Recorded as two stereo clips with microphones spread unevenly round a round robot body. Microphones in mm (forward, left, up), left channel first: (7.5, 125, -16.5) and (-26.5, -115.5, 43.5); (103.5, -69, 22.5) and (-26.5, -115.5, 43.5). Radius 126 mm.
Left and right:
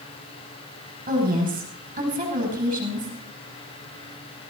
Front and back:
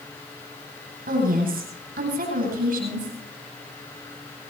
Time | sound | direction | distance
1.1 | a woman speaking | 160° right | 9 m